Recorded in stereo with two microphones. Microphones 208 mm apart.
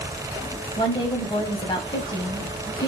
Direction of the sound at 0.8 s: 20° left (ahead or behind).